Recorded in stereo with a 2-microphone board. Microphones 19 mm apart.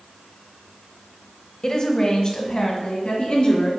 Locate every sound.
1.6 s a woman speaking: 40° left (ahead or behind), 1.1 m; by 3.7 s 55° left (ahead or behind), 2.5 m